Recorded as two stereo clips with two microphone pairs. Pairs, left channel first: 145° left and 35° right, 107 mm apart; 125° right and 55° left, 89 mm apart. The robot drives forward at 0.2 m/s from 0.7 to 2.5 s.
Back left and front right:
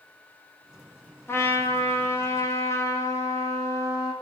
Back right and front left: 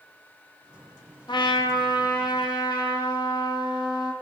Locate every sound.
1.3 s a trumpet: 150° right, 1.0 m; by 4.1 s 155° right, 1.2 m